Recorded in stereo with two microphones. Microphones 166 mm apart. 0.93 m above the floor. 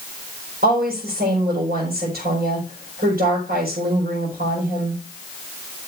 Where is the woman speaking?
80° right, 5 m.